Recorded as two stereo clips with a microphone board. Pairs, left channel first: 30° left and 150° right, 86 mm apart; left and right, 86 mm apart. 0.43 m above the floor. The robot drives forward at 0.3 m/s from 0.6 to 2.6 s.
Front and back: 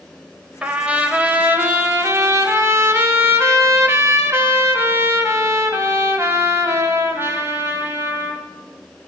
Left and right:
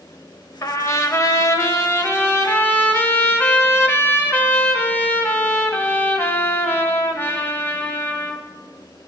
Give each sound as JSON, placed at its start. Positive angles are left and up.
{"t": 0.6, "sound": "a trumpet", "azimuth_deg": 135, "distance_m": 0.9}